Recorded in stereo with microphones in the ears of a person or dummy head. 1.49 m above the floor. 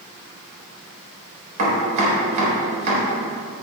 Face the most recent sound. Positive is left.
turn(degrees=-40)  # may be behind; listen again after turning